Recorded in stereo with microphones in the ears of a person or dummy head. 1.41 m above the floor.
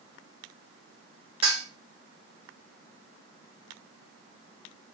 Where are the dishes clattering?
30° right (ahead or behind), 4 m.